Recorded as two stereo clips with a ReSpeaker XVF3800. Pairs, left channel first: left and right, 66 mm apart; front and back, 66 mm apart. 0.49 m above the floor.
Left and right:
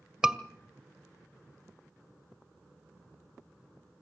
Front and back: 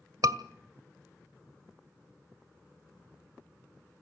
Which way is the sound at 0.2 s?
170° right.